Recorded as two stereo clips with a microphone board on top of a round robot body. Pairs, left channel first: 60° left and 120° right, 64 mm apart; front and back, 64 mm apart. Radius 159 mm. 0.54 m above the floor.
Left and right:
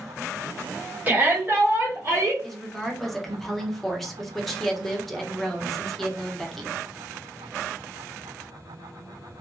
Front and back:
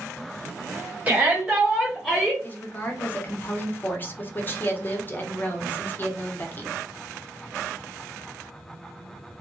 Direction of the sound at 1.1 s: 150° right.